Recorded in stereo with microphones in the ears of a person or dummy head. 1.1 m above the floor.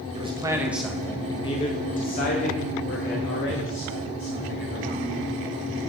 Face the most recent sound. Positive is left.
turn(degrees=70)  # may be behind; listen again after turning